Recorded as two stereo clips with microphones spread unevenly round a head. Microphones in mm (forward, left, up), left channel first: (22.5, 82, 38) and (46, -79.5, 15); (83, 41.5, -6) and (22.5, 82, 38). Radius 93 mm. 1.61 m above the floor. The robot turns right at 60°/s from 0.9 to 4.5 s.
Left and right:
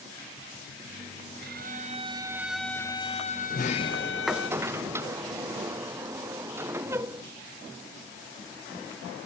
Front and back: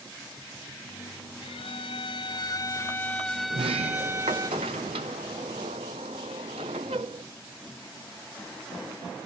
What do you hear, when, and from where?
1.4 s a violin: 60° right; by 4.5 s 125° left
3.5 s a sliding door: 145° left; by 7.2 s 155° right